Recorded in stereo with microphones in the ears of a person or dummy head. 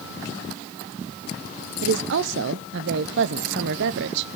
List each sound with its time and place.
1.8 s a woman speaking: 65° right (ahead or behind), 0.7 m